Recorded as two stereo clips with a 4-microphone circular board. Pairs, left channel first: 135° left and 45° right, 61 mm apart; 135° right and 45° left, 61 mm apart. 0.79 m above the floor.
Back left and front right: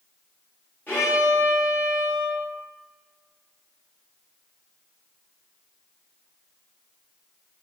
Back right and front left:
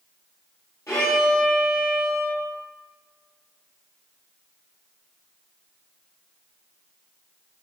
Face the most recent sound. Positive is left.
turn(degrees=-170)